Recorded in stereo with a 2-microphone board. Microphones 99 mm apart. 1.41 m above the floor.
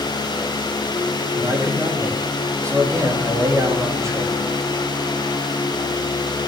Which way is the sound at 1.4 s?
30° right (ahead or behind).